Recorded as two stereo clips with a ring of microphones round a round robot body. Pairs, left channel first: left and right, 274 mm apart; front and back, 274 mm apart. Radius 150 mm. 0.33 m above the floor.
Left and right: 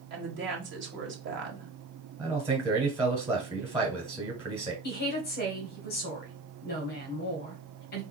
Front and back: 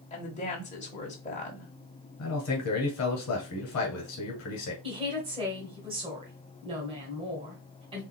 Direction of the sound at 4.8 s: 120° left.